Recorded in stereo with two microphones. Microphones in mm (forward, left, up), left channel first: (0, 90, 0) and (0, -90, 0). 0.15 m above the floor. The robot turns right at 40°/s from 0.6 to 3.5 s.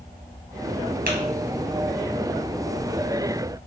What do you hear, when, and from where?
1.1 s tapping: 55° right (ahead or behind), 1.7 m; by 1.2 s 60° right (ahead or behind), 1.7 m